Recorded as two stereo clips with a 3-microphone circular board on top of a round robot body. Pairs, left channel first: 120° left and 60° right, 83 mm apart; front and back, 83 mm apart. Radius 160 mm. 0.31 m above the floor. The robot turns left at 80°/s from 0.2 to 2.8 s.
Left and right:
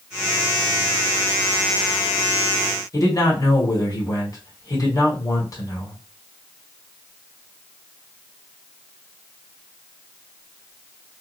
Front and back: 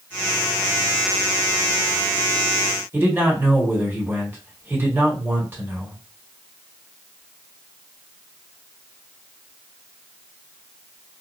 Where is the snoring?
I don't hear snoring.